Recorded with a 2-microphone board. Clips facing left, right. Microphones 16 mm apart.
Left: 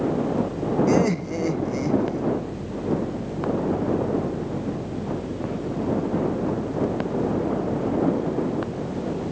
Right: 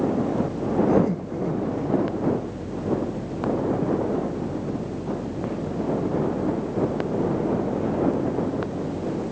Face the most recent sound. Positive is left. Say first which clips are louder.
# left 1 dB
turn(degrees=65)  # may be behind; listen again after turning